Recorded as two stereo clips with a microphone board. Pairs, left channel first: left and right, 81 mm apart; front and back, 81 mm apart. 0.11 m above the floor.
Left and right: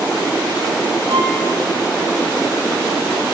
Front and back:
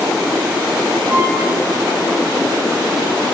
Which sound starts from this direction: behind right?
A violin, at 1.1 s.